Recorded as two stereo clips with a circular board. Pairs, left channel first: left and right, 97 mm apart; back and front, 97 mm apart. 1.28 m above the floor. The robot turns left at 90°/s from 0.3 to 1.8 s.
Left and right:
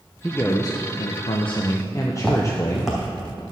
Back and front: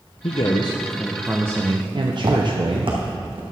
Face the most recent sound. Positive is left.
turn(degrees=-10)